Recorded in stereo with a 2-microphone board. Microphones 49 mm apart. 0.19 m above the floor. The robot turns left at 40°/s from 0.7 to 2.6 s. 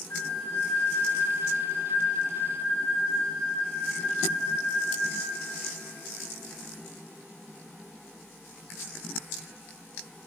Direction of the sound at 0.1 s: 105° left.